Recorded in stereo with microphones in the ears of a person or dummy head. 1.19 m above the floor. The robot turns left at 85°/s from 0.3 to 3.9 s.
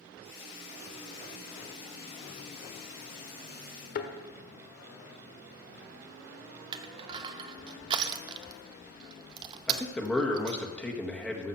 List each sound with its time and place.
4.0 s a thud: 50° left (ahead or behind), 1.4 m
6.7 s crushing: 30° right (ahead or behind), 0.7 m
9.7 s a man speaking: centre (ahead or behind), 1.5 m